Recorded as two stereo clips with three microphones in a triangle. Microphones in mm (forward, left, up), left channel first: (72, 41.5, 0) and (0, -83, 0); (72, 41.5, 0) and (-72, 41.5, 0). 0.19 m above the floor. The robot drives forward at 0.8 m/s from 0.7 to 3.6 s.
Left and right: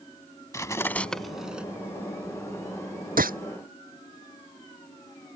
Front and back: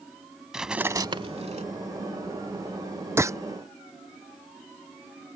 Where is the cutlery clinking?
100° left; by 1.6 s 160° left.